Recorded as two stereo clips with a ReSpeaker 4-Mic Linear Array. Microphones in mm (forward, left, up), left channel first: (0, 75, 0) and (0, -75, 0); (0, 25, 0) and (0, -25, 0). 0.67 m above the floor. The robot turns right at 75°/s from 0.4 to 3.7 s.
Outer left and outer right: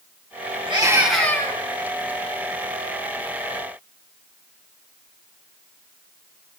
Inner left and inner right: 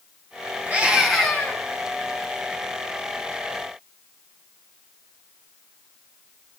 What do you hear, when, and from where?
0.7 s a scream: 35° right, 8.5 m; by 1.6 s 35° left, 8.5 m